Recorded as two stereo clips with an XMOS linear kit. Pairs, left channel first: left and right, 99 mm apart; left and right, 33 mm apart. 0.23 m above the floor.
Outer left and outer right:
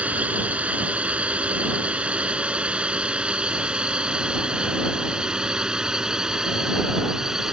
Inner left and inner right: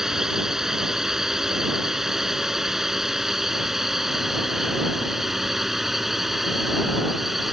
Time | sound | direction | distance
0.0 | a drone | 15° right (ahead or behind) | ?